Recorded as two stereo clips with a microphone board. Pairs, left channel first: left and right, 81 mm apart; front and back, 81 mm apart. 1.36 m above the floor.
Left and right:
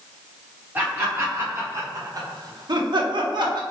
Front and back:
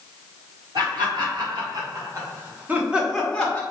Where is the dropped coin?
No dropped coin in this recording.